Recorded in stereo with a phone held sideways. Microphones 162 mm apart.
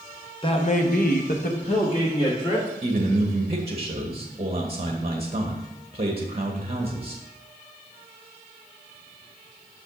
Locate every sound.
0.4 s a man speaking: 30° left (ahead or behind), 1.0 m
2.8 s a man speaking: 40° right (ahead or behind), 1.1 m